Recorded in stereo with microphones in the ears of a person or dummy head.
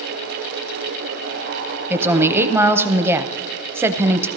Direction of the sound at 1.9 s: 15° right (ahead or behind).